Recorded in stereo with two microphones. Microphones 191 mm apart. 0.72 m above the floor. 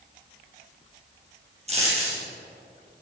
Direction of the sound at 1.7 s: 35° right (ahead or behind).